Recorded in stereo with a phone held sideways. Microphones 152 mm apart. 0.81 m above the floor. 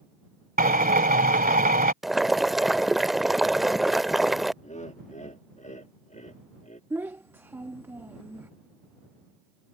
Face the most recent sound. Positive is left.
turn(degrees=-15)  # may be behind; listen again after turning